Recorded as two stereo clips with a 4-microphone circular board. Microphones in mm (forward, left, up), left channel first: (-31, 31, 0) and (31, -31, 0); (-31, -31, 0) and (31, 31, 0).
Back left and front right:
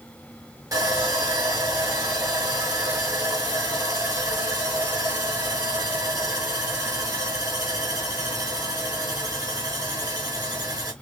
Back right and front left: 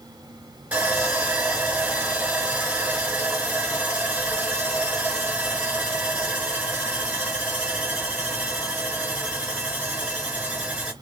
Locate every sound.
0.7 s sawing: 20° right, 1.5 m